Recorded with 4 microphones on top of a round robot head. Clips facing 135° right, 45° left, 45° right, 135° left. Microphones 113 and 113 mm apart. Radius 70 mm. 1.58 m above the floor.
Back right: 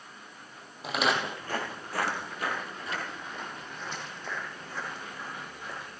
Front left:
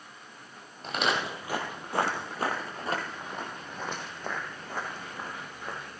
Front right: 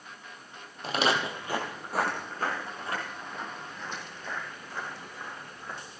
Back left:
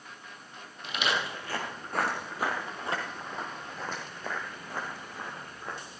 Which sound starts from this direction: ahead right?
Footsteps, at 0.8 s.